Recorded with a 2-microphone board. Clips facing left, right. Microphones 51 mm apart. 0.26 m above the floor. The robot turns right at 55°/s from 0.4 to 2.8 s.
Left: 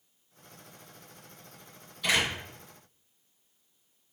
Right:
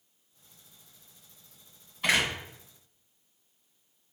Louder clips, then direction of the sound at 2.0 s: Right 1 dB; 40° right (ahead or behind).